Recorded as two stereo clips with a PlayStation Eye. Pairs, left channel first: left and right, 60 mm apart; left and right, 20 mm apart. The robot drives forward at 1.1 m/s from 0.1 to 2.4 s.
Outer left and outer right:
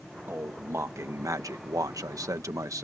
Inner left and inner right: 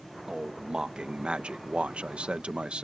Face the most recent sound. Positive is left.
turn(degrees=-60)  # may be behind; listen again after turning